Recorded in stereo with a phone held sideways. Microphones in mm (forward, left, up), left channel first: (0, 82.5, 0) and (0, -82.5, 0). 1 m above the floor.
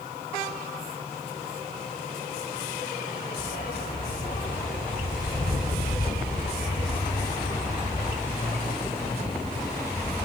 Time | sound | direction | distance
3.4 | a dog barking | 60° left (ahead or behind) | ?